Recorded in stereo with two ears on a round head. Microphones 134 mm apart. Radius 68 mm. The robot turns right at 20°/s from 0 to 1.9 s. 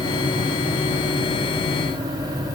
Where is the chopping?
No chopping in this recording.